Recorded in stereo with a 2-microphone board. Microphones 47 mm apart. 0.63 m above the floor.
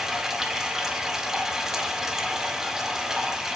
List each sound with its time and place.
0.0 s running water: 10° right (ahead or behind), 1.8 m